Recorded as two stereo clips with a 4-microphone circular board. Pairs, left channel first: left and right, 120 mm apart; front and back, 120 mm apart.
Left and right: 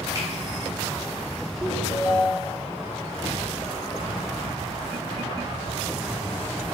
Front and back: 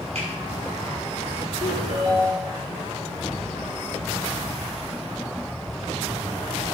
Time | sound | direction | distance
0.1 | a finger snap | 155° right | 7.5 m
1.6 | a ringtone | 160° right | 3.5 m